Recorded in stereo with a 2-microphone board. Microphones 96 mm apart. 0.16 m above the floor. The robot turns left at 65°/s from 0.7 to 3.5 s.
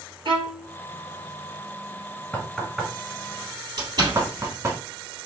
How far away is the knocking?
About 1.2 m.